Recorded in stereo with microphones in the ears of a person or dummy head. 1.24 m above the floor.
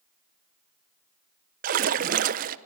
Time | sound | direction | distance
1.6 | a splash | 50° right (ahead or behind) | 0.9 m